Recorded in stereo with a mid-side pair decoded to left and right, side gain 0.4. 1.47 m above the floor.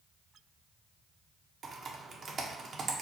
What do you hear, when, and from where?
1.6 s typing on a keyboard: 60° right, 0.8 m